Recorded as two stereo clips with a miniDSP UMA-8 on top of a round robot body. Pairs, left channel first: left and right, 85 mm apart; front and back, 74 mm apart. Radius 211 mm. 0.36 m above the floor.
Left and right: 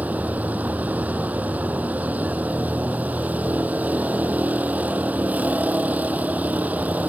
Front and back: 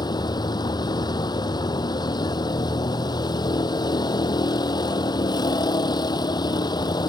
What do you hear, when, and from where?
0.0 s a vehicle: 15° right